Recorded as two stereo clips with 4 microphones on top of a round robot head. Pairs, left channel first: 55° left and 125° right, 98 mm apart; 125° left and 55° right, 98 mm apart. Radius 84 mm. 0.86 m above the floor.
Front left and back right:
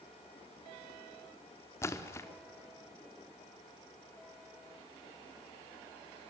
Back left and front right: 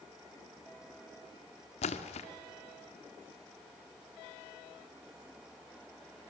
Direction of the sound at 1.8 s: 120° left.